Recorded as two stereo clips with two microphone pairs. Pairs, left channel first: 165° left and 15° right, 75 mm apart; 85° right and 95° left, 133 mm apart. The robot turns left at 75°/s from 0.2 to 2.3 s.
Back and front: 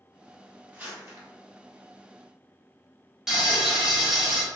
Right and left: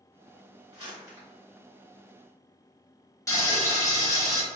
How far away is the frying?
About 0.9 m.